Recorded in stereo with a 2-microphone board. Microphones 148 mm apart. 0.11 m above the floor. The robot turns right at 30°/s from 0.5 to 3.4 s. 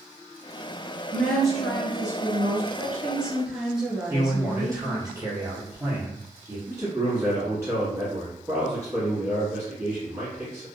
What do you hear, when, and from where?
1.1 s a woman speaking: 5° left (ahead or behind), 1.2 m; by 2.6 s 15° right (ahead or behind), 1.2 m
2.7 s a woman speaking: 15° right (ahead or behind), 1.3 m; by 5.1 s centre (ahead or behind), 1.3 m
4.1 s a man speaking: 25° right (ahead or behind), 1.3 m
6.7 s a man speaking: 20° right (ahead or behind), 1.2 m